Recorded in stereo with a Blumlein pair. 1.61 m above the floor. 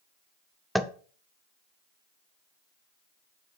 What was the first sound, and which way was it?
Tapping, straight ahead.